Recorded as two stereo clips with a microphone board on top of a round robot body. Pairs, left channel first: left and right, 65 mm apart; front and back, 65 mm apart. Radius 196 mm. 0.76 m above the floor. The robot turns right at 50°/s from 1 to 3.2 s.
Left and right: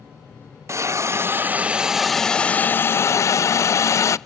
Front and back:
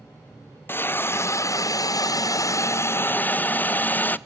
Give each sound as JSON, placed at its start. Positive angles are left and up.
{"t": 0.7, "sound": "a hiss", "azimuth_deg": -50, "distance_m": 0.7}